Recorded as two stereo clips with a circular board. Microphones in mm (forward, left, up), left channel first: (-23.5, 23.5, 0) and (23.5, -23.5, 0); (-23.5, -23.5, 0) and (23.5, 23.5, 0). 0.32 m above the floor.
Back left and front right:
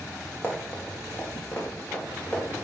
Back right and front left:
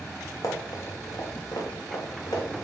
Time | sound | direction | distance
0.4 | running footsteps | 165° right | 3 m